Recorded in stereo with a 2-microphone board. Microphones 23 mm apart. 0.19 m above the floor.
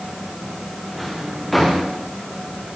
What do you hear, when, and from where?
0.9 s a drawer: centre (ahead or behind), 7.5 m